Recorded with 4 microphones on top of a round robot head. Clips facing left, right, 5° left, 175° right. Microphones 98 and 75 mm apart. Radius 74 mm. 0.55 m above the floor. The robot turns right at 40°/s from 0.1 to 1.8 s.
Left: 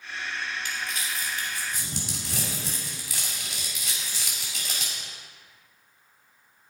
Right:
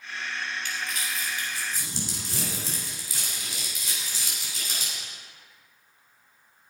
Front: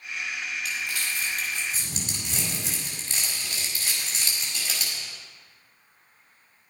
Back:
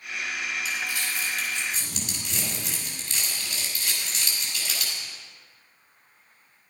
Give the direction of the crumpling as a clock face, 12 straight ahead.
12 o'clock.